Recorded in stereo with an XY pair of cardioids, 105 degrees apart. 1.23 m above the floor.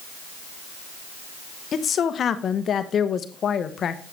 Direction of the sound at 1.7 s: 50° left.